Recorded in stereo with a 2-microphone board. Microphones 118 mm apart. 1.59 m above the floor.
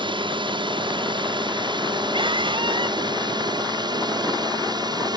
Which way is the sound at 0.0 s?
45° right (ahead or behind).